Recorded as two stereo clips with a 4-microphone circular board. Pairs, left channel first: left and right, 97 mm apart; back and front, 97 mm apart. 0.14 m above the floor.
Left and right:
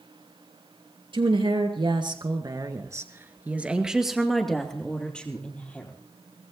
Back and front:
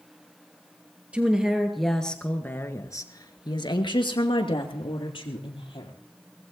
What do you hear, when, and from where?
1.1 s a woman speaking: 75° right, 2.5 m; by 5.9 s 165° left, 4 m